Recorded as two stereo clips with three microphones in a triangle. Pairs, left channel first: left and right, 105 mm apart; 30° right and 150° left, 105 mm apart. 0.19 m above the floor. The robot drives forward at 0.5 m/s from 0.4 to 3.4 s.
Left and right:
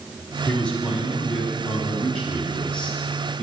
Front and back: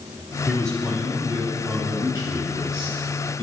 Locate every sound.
0.5 s a man speaking: 25° left, 1.2 m; by 3.4 s 170° left, 1.5 m